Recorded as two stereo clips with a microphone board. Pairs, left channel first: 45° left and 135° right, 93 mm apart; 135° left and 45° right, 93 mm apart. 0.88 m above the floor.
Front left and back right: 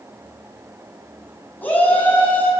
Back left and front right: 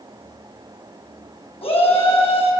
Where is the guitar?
I don't hear a guitar.